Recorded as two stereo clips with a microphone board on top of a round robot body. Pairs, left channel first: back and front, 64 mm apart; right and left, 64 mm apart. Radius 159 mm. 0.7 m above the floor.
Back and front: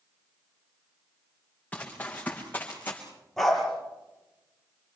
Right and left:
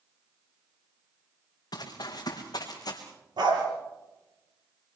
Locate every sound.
1.7 s running footsteps: 110° right, 4.5 m; by 3.0 s 115° right, 4 m
3.4 s a dog barking: 95° left, 5.5 m